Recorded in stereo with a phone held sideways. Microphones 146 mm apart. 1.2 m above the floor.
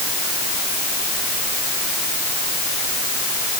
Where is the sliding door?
No sliding door in this recording.